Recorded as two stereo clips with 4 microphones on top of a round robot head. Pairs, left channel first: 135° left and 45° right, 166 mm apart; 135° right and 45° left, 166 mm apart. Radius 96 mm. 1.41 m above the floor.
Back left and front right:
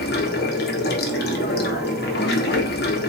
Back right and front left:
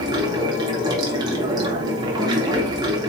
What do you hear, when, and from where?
0.0 s running water: 110° left, 0.9 m